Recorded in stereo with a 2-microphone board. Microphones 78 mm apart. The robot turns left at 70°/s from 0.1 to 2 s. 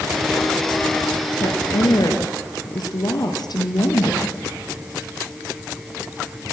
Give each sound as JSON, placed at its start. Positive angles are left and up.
{"t": 1.4, "sound": "a woman speaking", "azimuth_deg": 105, "distance_m": 3.5}